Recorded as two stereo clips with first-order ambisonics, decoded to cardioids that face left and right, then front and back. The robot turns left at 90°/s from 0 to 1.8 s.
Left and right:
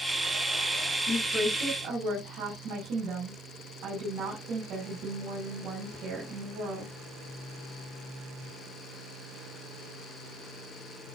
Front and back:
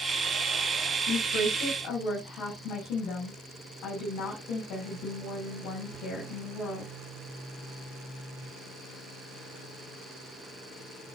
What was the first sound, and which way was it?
A woman speaking, 20° left.